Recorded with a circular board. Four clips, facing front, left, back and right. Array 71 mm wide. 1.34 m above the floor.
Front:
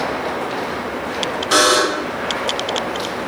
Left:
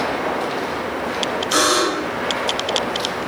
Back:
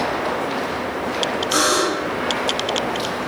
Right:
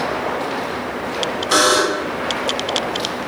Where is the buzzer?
35° right, 3 m.